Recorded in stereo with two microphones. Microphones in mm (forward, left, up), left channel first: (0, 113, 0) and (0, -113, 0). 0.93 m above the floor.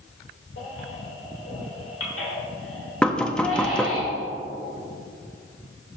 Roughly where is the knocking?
Centre.